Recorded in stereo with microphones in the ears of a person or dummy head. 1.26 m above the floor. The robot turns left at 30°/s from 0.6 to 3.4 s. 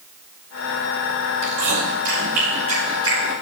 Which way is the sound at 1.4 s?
70° right (ahead or behind).